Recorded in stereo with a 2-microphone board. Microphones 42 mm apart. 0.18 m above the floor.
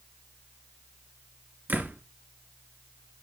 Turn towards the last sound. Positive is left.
turn(degrees=-45)  # may be behind; listen again after turning